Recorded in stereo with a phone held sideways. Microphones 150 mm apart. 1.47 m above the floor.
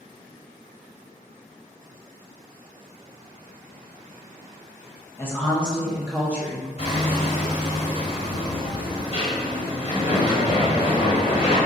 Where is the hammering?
40° left (ahead or behind), 1.6 m.